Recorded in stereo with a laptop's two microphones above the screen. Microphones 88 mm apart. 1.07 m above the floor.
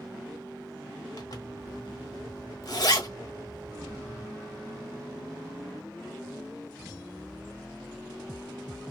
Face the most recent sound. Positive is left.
turn(degrees=55)  # may be behind; listen again after turning